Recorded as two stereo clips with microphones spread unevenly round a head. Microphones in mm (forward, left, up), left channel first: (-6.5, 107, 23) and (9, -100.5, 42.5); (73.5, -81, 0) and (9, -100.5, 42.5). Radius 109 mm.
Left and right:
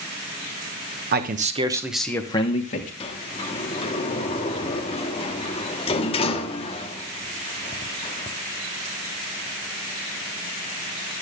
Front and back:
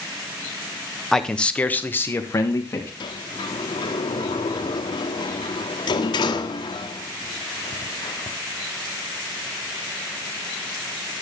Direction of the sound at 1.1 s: 45° right.